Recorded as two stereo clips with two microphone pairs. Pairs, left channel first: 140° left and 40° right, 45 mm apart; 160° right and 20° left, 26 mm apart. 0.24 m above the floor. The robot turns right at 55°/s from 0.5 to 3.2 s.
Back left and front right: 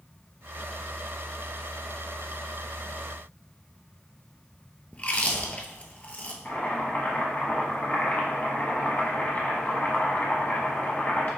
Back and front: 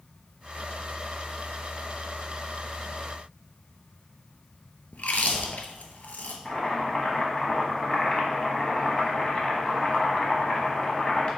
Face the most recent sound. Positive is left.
turn(degrees=165)